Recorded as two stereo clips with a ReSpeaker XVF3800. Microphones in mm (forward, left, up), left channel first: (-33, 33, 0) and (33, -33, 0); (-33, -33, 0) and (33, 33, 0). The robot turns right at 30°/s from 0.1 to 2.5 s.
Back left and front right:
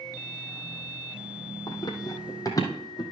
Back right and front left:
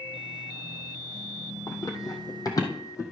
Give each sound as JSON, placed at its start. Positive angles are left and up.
{"t": 1.7, "sound": "running footsteps", "azimuth_deg": 175, "distance_m": 1.8}